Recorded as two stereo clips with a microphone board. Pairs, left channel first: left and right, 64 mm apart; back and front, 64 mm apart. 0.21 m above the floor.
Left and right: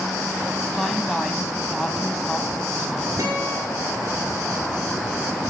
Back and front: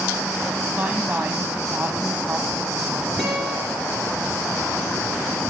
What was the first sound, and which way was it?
A woman speaking, 10° left.